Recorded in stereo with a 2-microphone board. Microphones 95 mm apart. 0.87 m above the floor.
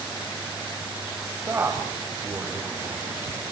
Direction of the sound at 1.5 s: 25° right (ahead or behind).